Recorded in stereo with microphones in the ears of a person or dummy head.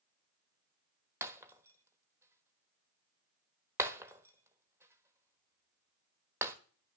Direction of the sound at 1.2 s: 10° right (ahead or behind).